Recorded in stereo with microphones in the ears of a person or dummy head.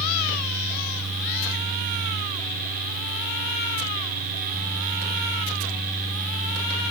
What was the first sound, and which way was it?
Only background noise.